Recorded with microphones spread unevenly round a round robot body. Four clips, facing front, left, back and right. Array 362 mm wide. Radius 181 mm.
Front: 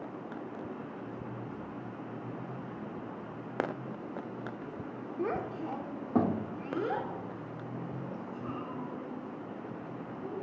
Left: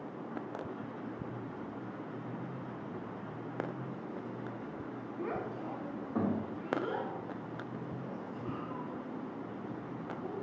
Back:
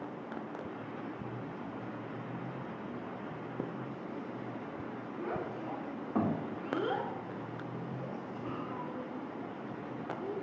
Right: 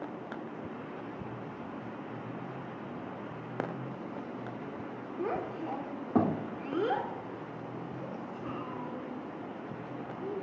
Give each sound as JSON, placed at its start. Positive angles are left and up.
{"t": 5.2, "sound": "a child speaking", "azimuth_deg": -35, "distance_m": 1.3}